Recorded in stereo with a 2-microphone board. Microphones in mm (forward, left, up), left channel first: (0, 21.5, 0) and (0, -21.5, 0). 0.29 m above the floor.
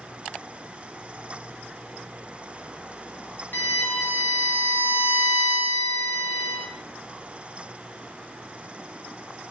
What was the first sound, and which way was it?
A violin, 45° left (ahead or behind).